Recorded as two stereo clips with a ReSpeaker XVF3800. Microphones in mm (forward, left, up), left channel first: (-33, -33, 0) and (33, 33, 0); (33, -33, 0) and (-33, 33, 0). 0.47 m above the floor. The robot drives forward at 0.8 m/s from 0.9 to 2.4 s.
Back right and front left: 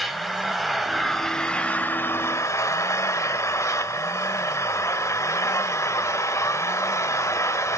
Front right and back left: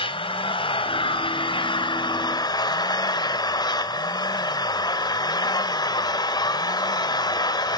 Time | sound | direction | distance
0.0 | an engine running | 45° right | 2 m